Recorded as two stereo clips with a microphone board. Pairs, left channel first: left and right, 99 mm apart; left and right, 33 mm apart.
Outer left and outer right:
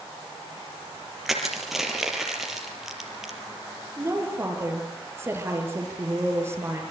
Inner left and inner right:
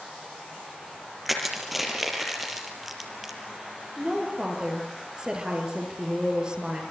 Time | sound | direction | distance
1.2 | crushing | centre (ahead or behind) | 5 m
4.0 | a woman speaking | 25° right (ahead or behind) | 7 m